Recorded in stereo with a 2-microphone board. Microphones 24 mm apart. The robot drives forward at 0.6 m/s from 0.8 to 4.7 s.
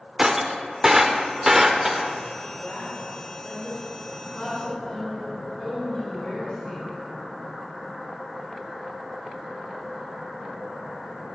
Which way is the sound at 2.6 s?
20° left (ahead or behind).